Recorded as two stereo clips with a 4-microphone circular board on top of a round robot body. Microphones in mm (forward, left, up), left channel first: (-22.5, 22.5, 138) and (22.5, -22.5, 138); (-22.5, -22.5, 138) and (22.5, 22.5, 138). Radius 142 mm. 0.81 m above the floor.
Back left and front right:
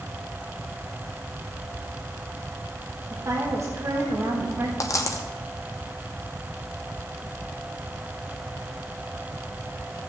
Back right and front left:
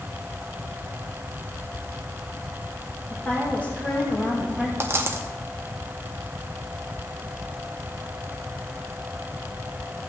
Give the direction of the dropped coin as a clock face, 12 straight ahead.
9 o'clock.